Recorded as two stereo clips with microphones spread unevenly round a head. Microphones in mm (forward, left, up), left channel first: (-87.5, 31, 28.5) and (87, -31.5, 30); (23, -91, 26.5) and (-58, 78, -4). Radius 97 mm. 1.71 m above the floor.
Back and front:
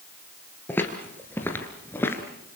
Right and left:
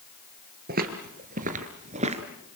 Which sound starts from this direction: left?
Footsteps, at 0.7 s.